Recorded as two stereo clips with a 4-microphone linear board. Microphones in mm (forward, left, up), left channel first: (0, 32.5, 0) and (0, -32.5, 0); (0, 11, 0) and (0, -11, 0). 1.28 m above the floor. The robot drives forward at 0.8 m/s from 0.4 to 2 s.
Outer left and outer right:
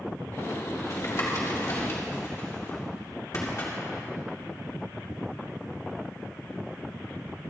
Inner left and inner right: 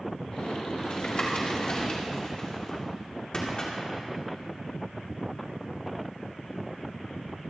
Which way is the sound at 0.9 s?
60° left (ahead or behind).